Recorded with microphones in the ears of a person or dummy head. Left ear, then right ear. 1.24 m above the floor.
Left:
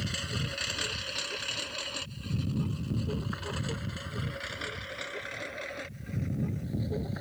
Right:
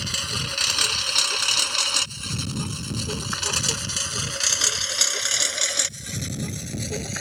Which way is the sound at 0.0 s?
30° right (ahead or behind).